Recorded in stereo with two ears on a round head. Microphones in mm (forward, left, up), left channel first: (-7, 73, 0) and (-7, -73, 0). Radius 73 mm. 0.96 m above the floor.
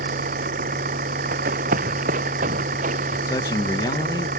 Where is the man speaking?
25° left (ahead or behind).